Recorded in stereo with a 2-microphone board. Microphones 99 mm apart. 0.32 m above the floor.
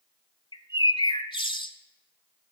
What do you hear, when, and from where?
0.5 s a bird: 55° left (ahead or behind), 0.7 m